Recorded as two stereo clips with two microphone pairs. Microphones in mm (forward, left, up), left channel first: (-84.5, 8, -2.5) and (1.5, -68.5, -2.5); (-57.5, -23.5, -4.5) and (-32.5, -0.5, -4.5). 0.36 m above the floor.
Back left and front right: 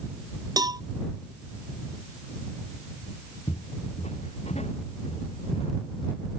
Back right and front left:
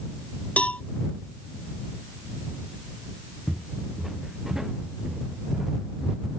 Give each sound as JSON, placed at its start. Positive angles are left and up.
{"t": 0.6, "sound": "a cowbell", "azimuth_deg": -95}
{"t": 3.5, "sound": "footsteps", "azimuth_deg": 125}